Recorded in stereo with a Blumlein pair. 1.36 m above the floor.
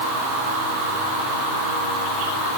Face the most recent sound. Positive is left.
No sound to turn to.